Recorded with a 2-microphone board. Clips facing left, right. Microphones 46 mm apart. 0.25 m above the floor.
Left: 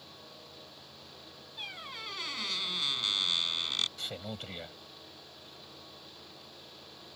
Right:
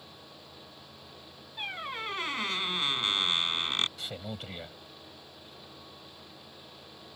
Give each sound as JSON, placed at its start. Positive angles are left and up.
{"t": 1.6, "sound": "a squeak", "side_deg": -30}
{"t": 4.0, "sound": "a man speaking", "side_deg": -5}